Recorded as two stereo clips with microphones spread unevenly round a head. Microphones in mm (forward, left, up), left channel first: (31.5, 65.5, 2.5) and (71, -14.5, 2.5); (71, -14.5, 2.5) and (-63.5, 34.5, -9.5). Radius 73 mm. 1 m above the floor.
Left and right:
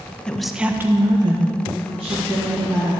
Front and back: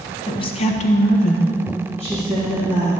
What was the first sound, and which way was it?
A woman speaking, 40° left.